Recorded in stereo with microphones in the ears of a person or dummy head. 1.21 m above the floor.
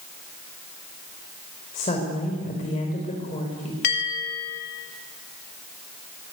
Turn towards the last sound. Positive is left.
turn(degrees=50)  # may be behind; listen again after turning